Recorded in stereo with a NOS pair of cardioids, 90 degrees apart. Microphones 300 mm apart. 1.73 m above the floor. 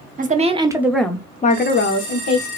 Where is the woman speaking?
30° right, 0.9 m; by 2.5 s 60° left, 1.0 m.